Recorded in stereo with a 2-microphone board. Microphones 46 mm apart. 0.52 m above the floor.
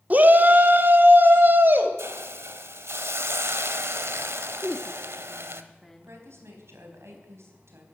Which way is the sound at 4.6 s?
5° left (ahead or behind).